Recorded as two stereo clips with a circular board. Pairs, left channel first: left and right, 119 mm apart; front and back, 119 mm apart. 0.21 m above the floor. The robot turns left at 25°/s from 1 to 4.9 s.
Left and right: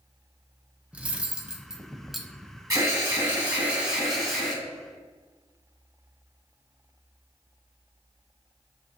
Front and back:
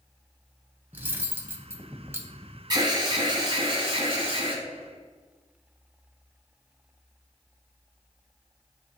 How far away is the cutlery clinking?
About 0.5 m.